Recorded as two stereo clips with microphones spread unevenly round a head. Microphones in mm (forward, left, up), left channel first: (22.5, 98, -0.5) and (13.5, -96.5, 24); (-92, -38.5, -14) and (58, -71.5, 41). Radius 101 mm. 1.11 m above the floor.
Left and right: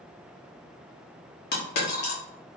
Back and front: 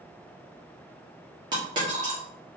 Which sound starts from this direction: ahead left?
A dropped coin, at 1.5 s.